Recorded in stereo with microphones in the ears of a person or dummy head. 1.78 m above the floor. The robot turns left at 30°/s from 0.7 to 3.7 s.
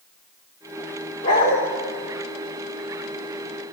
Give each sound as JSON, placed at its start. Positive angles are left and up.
{"t": 1.2, "sound": "a dog barking", "side_deg": 20, "distance_m": 1.4}